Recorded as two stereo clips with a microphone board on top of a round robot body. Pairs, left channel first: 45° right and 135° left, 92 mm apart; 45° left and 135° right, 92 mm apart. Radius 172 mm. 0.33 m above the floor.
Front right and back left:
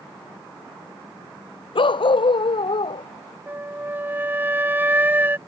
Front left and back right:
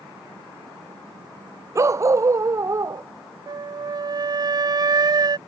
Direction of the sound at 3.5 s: 160° right.